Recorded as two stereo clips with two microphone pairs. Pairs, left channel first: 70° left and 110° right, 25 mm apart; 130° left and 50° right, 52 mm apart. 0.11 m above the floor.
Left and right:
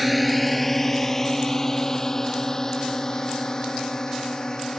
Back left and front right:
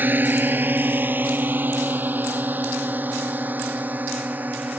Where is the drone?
25° right; by 4.8 s 5° left.